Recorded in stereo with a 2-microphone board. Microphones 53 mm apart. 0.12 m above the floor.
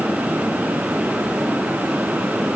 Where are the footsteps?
I don't hear footsteps.